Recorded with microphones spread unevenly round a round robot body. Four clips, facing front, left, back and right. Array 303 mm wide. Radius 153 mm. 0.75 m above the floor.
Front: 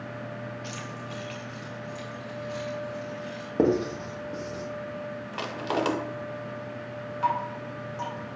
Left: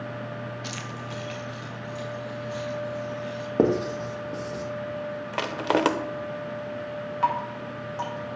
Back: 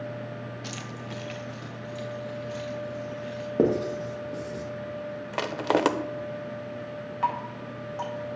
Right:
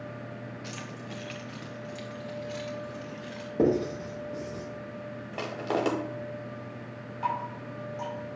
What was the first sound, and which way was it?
Keys jangling, 175° left.